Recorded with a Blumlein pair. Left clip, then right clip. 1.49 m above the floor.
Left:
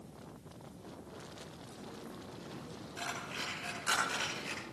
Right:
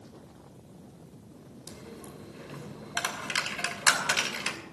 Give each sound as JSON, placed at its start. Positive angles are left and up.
{"t": 1.7, "sound": "a dropped coin", "azimuth_deg": -50, "distance_m": 3.0}